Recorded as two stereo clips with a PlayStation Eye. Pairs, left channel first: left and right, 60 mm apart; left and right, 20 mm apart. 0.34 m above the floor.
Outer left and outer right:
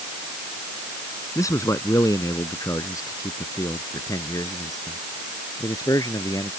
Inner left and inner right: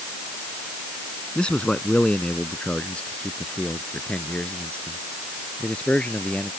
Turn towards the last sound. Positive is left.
turn(degrees=80)